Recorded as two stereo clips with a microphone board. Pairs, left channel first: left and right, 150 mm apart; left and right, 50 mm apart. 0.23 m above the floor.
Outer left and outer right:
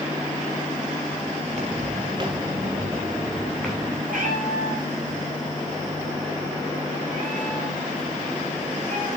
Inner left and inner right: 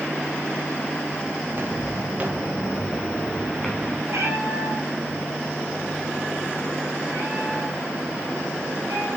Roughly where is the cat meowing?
Right.